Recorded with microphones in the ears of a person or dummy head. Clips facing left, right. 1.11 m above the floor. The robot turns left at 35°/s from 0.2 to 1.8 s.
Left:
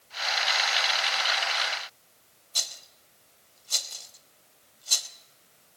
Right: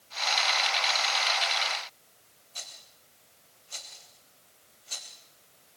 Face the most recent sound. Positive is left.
turn(degrees=60)  # may be behind; listen again after turning